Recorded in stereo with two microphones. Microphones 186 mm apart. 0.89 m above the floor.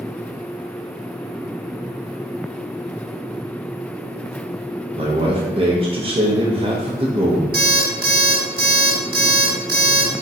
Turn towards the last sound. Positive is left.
turn(degrees=-55)  # may be behind; listen again after turning